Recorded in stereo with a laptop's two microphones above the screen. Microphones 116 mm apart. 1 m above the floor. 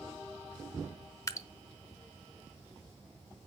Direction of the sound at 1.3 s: 25° left (ahead or behind).